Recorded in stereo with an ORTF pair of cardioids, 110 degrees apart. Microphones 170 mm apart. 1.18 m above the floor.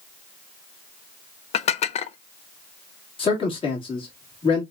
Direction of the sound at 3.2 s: 30° left.